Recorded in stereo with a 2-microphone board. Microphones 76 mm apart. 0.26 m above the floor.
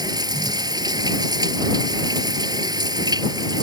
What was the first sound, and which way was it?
Running water, 65° right (ahead or behind).